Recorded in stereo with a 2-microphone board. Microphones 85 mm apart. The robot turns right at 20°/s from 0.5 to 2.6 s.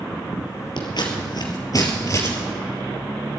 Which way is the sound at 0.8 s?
60° left (ahead or behind).